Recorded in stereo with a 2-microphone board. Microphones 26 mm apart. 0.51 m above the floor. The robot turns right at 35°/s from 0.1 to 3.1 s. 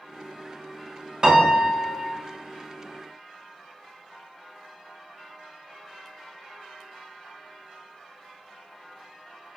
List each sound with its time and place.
1.2 s a piano: 145° right, 0.7 m; by 2.1 s 115° right, 0.7 m